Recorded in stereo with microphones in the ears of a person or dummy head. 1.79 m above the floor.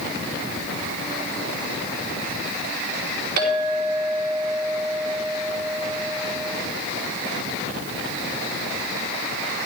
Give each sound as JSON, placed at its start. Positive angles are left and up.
{"t": 3.4, "sound": "a clink", "side_deg": -60, "distance_m": 3.5}